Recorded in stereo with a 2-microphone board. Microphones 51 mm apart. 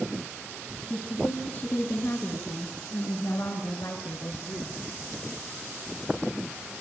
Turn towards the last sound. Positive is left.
turn(degrees=80)